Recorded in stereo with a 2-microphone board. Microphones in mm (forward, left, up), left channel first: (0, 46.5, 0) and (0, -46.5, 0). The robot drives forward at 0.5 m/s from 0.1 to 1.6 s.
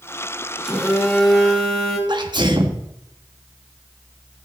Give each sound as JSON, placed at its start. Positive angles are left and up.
{"t": 0.6, "sound": "a phone buzzing", "side_deg": 5, "distance_m": 3.5}
{"t": 2.1, "sound": "a sneeze", "side_deg": -55, "distance_m": 1.6}